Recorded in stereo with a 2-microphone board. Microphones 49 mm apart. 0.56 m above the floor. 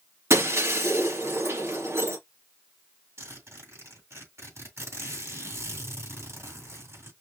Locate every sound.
0.3 s breaking glass: 65° right (ahead or behind), 3.5 m
3.2 s a zipper: 65° right (ahead or behind), 4.5 m